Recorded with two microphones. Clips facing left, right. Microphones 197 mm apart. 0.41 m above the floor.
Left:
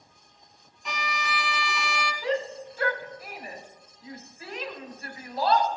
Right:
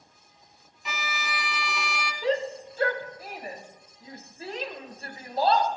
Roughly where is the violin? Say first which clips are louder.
Left 2 dB; centre.